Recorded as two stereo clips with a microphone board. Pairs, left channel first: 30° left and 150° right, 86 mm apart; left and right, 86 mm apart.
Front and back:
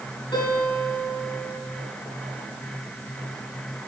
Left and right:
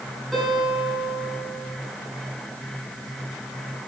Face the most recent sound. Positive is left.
turn(degrees=0)